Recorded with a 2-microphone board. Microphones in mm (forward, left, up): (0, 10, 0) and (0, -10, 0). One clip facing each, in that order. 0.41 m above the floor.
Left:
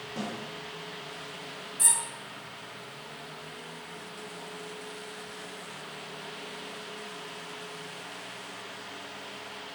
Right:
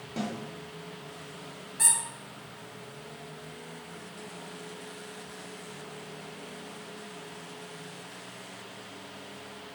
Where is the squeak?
30° right (ahead or behind), 0.8 m.